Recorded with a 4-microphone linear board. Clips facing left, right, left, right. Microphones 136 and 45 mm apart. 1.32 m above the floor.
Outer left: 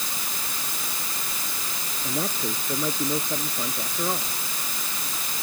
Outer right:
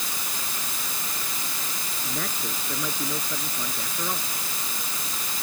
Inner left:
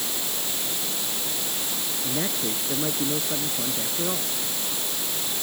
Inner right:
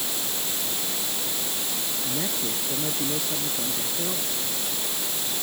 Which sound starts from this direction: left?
A man speaking, at 2.0 s.